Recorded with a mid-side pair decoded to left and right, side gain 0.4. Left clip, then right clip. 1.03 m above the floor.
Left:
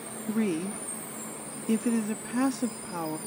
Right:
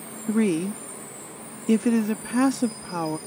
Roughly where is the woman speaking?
Ahead right.